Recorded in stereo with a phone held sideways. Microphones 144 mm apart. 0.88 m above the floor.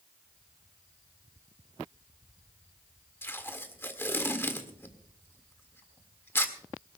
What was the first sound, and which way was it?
Tape being pulled, 15° left (ahead or behind).